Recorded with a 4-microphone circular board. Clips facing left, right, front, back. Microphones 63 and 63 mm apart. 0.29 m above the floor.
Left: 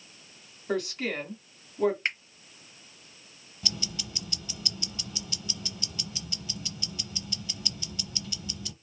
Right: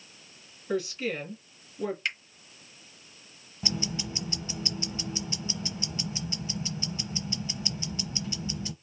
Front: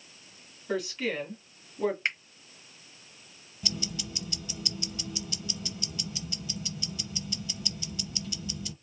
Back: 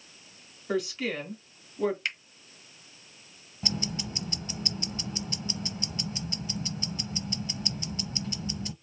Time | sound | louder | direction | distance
0.7 | a woman speaking | even, back 1 dB | 90° left | 2.5 m
2.0 | a finger snap | left 2 dB, front 3 dB | 50° left | 1.1 m
3.6 | ticking | right 5 dB, back 3 dB | 145° right | 0.7 m